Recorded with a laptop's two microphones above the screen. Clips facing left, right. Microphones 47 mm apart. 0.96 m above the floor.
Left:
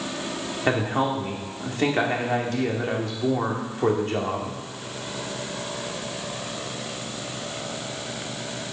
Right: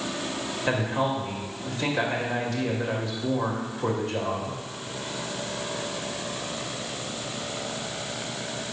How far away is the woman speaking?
About 2 m.